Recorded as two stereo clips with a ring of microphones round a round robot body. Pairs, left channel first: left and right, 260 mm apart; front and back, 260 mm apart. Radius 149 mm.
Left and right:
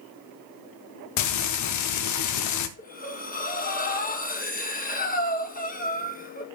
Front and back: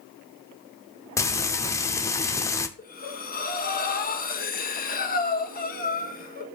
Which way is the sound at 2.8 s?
45° left.